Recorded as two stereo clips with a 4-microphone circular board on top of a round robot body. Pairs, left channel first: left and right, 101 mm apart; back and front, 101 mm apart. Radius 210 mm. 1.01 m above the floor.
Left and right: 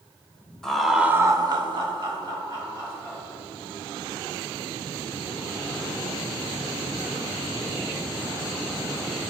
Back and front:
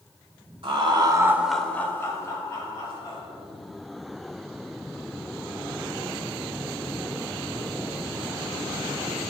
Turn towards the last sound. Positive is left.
turn(degrees=-135)